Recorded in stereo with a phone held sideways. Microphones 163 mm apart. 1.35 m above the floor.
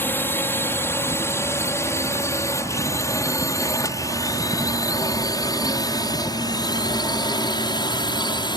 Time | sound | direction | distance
0.0 | a drone | 15° left (ahead or behind) | ?